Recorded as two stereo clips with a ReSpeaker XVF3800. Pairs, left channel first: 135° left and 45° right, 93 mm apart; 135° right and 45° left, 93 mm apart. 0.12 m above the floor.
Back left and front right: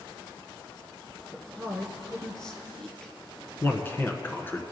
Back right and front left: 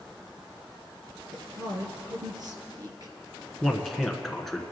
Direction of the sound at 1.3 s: 55° left.